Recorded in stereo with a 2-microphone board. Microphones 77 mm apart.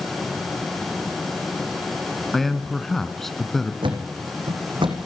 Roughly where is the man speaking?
Centre.